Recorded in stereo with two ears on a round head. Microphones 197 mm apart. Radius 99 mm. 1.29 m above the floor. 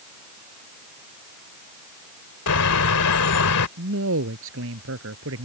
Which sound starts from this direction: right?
A man speaking, at 3.8 s.